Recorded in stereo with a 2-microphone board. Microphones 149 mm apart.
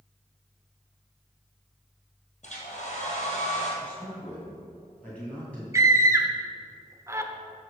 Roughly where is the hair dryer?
Left.